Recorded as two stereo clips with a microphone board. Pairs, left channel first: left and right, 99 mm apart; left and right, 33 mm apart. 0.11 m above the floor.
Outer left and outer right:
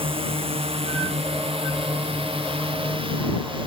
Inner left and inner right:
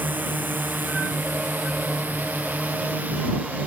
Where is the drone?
70° right (ahead or behind); by 3.7 s 60° right (ahead or behind).